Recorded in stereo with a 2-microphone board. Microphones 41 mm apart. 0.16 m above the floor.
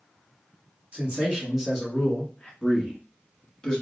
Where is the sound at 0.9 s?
35° right (ahead or behind), 1.4 m; by 2.5 s 20° left (ahead or behind), 1.5 m.